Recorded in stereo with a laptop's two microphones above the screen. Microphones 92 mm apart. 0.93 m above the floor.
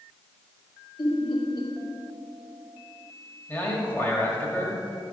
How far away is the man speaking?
About 1.8 m.